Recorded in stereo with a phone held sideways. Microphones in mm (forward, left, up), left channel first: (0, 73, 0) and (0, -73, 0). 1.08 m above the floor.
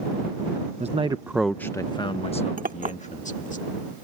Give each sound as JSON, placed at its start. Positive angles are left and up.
{"t": 0.8, "sound": "a man speaking", "side_deg": -50}
{"t": 2.6, "sound": "a clink", "side_deg": -70}